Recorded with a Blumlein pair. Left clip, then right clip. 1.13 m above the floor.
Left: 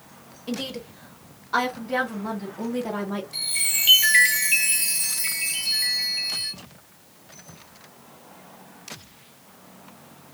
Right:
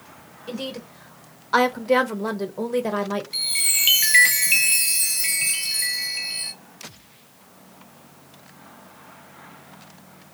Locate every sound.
0.5 s a woman speaking: 10° left, 1.1 m; by 3.2 s 70° right, 1.2 m
3.3 s a chime: 20° right, 1.0 m